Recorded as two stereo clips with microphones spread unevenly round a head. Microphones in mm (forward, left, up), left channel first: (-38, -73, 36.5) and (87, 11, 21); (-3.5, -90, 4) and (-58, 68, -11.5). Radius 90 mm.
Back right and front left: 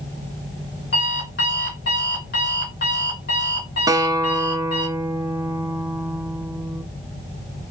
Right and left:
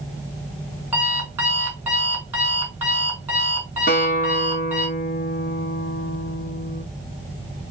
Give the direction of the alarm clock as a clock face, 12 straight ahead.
6 o'clock.